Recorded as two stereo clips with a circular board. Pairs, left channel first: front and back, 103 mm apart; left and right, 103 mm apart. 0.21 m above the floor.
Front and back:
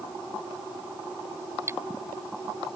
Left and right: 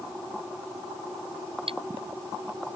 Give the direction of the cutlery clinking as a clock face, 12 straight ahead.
4 o'clock.